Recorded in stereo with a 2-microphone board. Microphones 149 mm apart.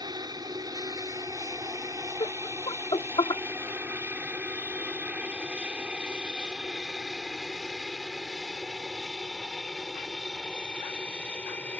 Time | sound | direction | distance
0.0 | an aircraft | 25° right (ahead or behind) | ?
2.2 | laughter | 35° left (ahead or behind) | ?